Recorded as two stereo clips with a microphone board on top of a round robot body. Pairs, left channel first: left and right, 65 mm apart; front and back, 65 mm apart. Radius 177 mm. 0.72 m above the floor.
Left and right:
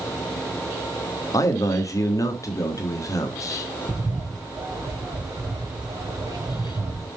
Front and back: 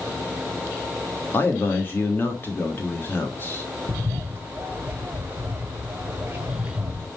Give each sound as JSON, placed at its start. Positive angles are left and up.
{"t": 1.3, "sound": "a man speaking", "azimuth_deg": 55, "distance_m": 1.5}
{"t": 3.9, "sound": "a bird", "azimuth_deg": -120, "distance_m": 1.4}